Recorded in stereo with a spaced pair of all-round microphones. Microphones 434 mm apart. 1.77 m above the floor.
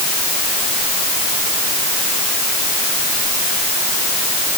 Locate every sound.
Only background noise.